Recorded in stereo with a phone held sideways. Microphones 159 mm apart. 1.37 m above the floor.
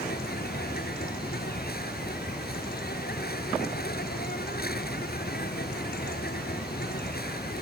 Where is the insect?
80° left.